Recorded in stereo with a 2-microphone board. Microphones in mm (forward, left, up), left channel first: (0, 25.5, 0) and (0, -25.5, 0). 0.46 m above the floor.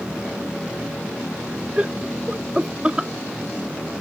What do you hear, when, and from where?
1.8 s laughter: 25° right (ahead or behind); by 3.1 s 20° right (ahead or behind)